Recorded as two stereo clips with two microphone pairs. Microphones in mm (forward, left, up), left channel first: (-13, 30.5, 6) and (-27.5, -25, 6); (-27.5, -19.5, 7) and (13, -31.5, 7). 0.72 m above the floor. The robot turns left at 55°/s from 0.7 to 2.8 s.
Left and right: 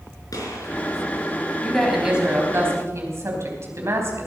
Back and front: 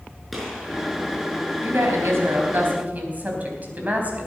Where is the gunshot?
75° left, 5.5 m.